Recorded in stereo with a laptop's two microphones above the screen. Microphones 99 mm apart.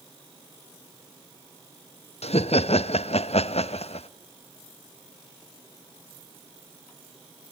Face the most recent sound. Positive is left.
turn(degrees=80)